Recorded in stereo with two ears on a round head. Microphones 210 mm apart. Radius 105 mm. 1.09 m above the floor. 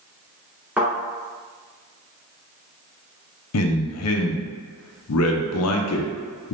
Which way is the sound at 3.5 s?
65° left (ahead or behind).